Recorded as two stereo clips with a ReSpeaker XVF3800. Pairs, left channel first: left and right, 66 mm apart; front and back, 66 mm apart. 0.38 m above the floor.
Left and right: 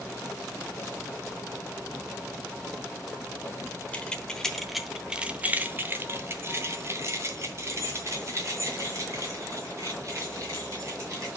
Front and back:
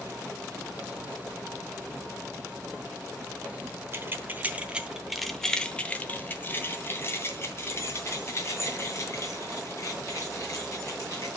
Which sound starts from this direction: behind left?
Keys jangling, at 3.9 s.